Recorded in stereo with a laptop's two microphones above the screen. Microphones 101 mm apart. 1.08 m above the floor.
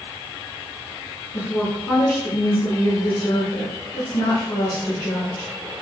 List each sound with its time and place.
1.3 s a woman speaking: 50° left (ahead or behind), 0.9 m